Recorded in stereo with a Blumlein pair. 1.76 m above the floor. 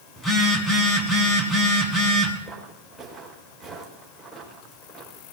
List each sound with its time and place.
0.2 s a phone buzzing: 15° left, 4.5 m
2.5 s footsteps: straight ahead, 6 m